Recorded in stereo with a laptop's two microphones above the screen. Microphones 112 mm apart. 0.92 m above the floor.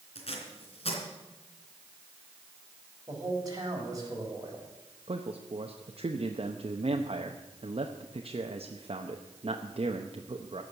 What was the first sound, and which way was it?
Tape being pulled, 60° left (ahead or behind).